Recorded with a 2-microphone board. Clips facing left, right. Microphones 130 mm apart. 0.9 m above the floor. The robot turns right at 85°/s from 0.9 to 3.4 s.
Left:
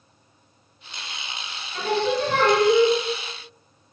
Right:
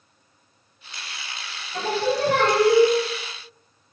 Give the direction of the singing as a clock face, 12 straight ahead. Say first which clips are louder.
Even; 5 o'clock.